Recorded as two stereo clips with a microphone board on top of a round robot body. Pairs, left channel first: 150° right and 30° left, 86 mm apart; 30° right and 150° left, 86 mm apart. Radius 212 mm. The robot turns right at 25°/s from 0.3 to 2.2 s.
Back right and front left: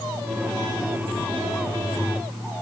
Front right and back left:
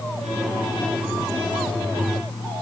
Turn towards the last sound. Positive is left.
No sound to turn to.